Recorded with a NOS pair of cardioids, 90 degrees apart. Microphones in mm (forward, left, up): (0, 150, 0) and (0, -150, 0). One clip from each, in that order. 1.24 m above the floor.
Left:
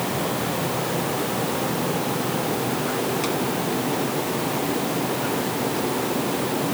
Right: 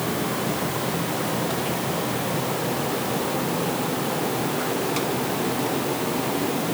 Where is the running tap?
No running tap in this recording.